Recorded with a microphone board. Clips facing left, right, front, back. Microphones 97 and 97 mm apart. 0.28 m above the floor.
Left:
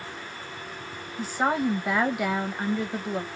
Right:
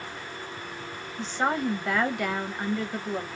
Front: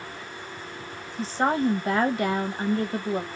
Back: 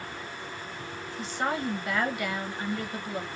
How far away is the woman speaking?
About 1.2 m.